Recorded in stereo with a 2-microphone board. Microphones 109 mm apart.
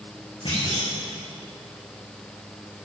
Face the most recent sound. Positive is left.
turn(degrees=50)  # may be behind; listen again after turning